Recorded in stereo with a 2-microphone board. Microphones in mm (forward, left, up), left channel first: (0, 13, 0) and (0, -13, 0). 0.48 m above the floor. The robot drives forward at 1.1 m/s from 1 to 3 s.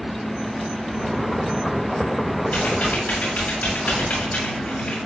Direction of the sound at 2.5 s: 75° left (ahead or behind).